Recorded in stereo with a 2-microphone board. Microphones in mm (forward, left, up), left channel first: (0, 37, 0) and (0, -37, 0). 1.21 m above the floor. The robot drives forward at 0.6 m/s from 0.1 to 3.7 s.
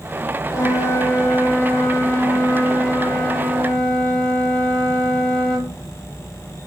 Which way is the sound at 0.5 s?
45° left (ahead or behind).